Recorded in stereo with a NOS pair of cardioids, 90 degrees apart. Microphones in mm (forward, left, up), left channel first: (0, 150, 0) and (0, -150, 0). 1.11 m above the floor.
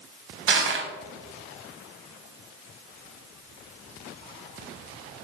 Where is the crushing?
40° right, 0.8 m.